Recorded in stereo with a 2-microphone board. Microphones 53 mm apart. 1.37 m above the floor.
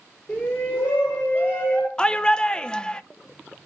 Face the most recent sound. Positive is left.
turn(degrees=15)  # may be behind; listen again after turning